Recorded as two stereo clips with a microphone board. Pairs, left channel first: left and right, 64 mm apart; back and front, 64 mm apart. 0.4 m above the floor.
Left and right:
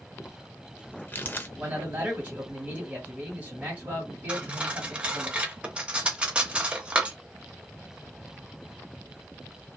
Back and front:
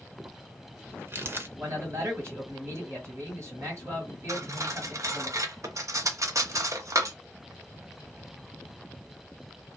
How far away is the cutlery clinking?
About 0.6 m.